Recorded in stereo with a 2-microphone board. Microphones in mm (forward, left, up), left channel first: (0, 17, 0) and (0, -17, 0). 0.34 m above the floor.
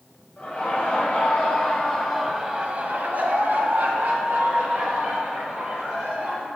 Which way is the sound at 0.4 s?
30° left (ahead or behind).